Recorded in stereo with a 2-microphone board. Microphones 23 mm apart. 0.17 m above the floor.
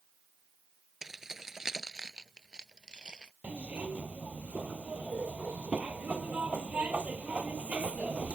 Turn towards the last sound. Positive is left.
turn(degrees=-75)  # may be behind; listen again after turning